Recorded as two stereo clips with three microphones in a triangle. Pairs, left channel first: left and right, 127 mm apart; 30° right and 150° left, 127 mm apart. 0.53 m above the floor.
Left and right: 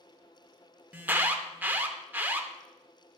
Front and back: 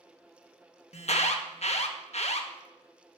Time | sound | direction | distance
0.9 | an alarm | 15° right | 0.7 m